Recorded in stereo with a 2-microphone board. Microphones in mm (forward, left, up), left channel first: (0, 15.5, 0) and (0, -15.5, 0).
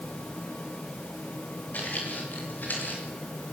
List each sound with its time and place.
1.7 s footsteps: 65° left (ahead or behind), 9 m; by 3.0 s 70° left (ahead or behind), 9 m